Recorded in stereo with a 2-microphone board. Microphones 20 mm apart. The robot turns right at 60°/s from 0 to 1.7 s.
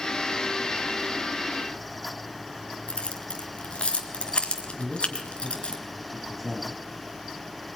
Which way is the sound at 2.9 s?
75° left (ahead or behind).